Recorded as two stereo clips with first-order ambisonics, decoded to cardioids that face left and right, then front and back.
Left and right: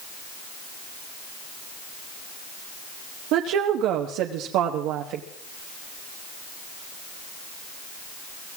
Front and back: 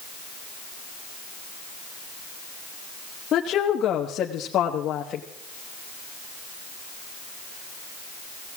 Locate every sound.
3.3 s a woman speaking: 60° right, 1.3 m